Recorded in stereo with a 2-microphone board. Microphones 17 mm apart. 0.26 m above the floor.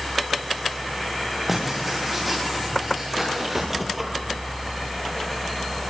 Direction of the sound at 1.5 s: 5° right (ahead or behind).